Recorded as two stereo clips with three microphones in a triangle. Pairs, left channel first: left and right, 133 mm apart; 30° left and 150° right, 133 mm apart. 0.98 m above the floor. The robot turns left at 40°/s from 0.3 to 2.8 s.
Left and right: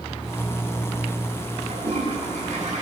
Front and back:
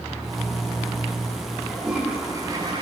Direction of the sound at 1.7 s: 55° right.